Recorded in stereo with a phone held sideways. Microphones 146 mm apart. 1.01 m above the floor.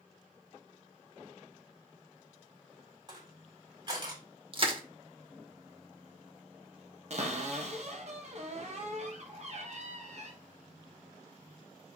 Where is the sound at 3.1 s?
30° right (ahead or behind), 3.5 m.